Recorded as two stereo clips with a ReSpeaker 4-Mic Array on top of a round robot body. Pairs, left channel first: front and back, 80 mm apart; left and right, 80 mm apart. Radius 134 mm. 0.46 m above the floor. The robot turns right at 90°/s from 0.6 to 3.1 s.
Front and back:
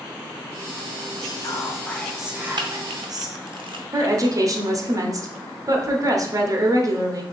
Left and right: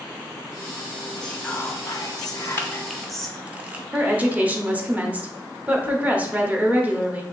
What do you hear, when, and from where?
1.2 s whispering: 5° left, 1.0 m; by 3.4 s 175° left, 1.0 m
2.6 s a camera shutter: 150° left, 0.6 m; by 3.8 s 165° right, 0.6 m
3.9 s a woman speaking: 155° right, 1.0 m